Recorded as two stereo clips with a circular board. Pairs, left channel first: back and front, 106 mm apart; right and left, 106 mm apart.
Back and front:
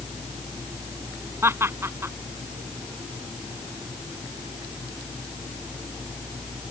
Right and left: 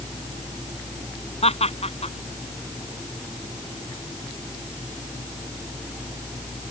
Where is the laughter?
70° right.